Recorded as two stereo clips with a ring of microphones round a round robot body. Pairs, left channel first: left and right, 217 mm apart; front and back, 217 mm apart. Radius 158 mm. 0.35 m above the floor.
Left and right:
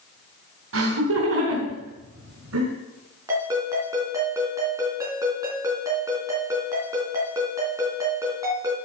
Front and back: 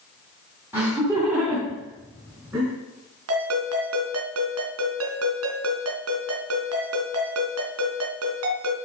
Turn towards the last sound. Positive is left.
turn(degrees=-170)